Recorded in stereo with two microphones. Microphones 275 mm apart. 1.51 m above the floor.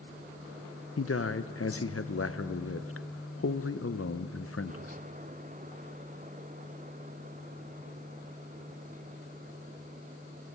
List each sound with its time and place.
1.0 s a man speaking: 55° left (ahead or behind), 0.8 m